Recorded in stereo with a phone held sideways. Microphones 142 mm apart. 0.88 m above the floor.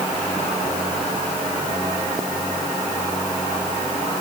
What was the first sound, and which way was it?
Only background noise.